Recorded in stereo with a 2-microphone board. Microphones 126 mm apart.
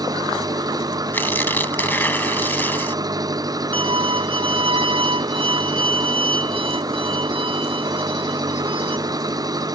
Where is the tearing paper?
15° left (ahead or behind).